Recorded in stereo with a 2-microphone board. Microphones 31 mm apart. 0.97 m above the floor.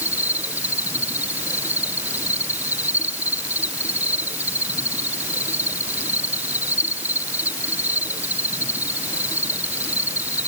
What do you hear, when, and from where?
0.0 s an insect: 70° right (ahead or behind)